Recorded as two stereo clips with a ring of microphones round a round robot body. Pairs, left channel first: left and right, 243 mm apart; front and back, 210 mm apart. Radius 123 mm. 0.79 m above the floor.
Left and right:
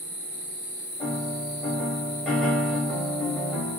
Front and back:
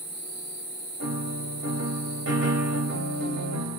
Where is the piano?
Straight behind, 2.5 m.